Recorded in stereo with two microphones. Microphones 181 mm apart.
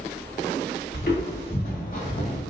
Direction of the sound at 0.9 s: 60° left (ahead or behind).